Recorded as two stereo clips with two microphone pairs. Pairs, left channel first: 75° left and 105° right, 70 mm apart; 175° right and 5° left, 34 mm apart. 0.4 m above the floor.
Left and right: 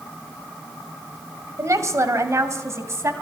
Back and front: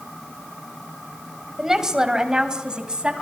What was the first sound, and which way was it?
A woman speaking, 75° right.